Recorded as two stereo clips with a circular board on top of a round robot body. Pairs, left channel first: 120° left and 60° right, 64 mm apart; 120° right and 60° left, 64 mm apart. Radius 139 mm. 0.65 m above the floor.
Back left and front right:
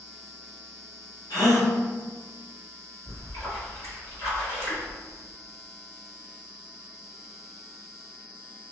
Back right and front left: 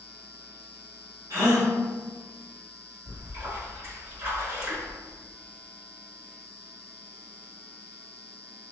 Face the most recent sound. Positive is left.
turn(degrees=95)